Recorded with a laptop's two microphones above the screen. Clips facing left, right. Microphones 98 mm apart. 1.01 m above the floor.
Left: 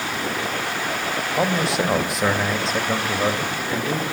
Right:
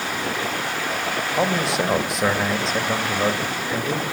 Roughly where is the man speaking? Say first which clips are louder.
Even; centre.